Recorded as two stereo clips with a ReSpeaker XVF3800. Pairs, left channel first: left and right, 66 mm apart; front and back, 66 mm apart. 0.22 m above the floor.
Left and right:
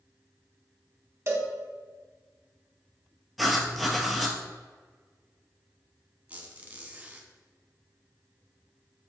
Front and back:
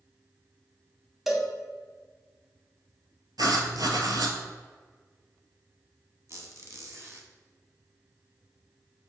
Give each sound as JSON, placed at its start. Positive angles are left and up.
{"t": 1.3, "sound": "a cowbell", "azimuth_deg": -95, "distance_m": 0.6}
{"t": 3.4, "sound": "writing", "azimuth_deg": 180, "distance_m": 0.6}
{"t": 6.3, "sound": "a squeak", "azimuth_deg": -150, "distance_m": 0.7}